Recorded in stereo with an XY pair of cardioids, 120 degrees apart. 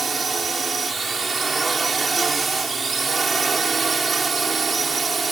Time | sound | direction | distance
0.0 | a drone | 25° right | ?